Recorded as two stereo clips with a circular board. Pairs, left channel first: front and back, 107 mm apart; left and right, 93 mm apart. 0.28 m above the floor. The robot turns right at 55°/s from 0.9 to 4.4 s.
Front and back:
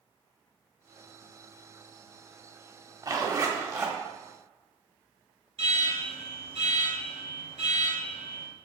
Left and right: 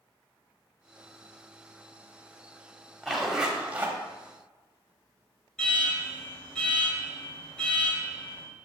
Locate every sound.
3.0 s a zipper: 175° left, 1.0 m; by 4.0 s 135° right, 1.0 m
5.6 s an alarm: 170° left, 2.5 m